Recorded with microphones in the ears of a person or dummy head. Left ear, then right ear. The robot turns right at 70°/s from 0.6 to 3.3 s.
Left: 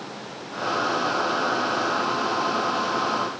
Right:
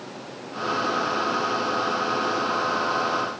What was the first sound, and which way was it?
Only background noise.